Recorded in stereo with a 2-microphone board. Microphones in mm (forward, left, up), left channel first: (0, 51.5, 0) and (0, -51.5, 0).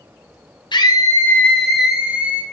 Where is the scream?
45° left (ahead or behind), 1.0 m; by 2.4 s 15° right (ahead or behind), 1.7 m.